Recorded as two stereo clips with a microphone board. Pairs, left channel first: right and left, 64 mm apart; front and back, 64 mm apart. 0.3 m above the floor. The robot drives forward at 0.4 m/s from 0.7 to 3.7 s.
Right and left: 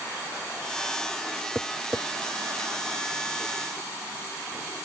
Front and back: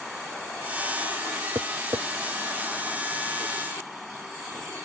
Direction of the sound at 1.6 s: 150° left.